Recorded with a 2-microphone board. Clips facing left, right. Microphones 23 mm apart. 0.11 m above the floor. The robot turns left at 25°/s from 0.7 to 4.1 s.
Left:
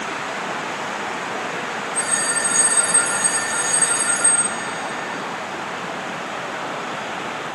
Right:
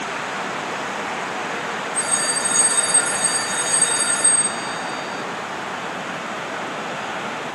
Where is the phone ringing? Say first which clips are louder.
Left 1 dB; 100° left, 3.5 m; by 5.2 s 50° left, 3.5 m.